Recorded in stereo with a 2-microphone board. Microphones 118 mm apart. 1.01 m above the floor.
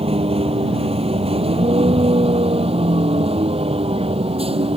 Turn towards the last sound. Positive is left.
turn(degrees=-50)  # may be behind; listen again after turning